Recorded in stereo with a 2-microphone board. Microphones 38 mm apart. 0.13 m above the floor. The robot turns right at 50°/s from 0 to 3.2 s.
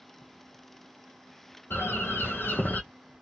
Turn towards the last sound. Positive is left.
turn(degrees=150)